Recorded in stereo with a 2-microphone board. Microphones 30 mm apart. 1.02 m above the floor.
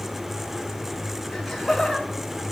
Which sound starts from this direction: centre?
Laughter, at 1.3 s.